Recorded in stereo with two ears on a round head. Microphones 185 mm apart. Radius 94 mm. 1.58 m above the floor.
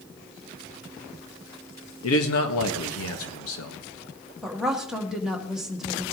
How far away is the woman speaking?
About 1.6 m.